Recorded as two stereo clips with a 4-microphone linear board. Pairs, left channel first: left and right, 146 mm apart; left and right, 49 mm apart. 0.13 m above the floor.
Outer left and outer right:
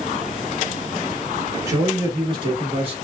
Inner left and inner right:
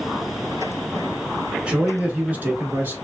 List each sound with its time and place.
1.7 s a man speaking: 20° right (ahead or behind), 1.2 m; by 3.0 s 45° right (ahead or behind), 1.5 m